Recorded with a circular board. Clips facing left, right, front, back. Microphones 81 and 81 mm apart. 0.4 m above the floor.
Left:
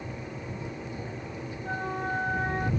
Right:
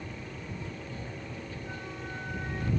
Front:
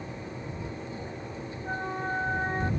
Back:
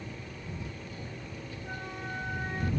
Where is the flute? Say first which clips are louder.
Left 9 dB, front 9 dB; 50° left.